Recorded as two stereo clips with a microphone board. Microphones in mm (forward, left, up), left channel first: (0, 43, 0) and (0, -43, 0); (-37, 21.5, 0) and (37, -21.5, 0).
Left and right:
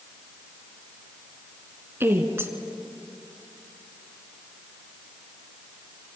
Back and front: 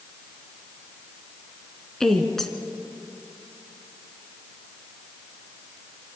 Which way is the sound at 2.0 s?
130° right.